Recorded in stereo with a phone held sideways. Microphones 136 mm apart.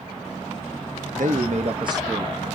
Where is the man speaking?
75° right (ahead or behind), 0.8 m; by 2.5 s centre (ahead or behind), 0.8 m.